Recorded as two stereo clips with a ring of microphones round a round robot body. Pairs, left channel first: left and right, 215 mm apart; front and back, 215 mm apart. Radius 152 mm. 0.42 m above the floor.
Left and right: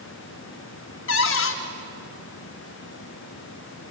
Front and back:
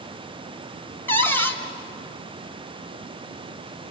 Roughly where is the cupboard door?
Left.